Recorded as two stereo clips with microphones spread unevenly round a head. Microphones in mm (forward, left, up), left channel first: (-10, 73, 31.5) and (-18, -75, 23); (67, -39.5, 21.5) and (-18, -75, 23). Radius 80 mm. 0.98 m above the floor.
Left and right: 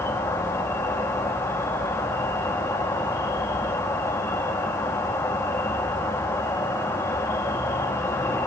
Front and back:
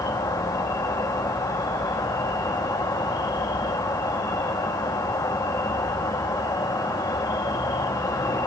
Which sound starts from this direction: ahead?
An insect, at 0.0 s.